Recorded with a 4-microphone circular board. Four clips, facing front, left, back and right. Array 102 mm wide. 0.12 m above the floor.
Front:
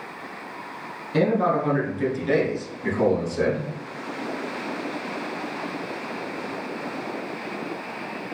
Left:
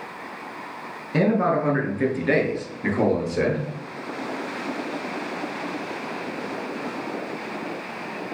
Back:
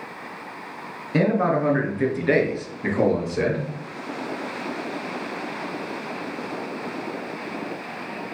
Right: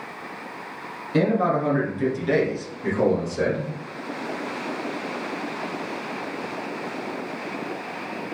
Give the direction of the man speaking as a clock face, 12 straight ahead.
7 o'clock.